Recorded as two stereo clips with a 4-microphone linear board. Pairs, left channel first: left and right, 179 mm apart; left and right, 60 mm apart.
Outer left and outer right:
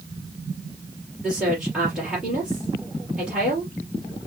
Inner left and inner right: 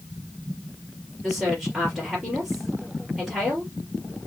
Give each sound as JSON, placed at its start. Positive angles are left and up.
{"t": 1.2, "sound": "a woman speaking", "side_deg": -5, "distance_m": 4.0}